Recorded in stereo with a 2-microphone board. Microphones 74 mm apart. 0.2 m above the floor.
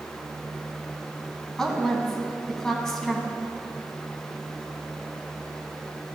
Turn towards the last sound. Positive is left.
turn(degrees=10)  # may be behind; listen again after turning